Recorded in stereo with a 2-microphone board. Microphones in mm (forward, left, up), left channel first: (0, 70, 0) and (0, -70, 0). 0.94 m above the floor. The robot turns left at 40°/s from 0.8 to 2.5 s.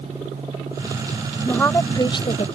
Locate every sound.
1.4 s a woman speaking: 170° left; by 2.5 s 130° left